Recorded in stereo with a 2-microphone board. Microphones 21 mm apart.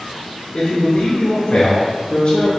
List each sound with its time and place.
0.5 s a man speaking: 50° left (ahead or behind), 1.3 m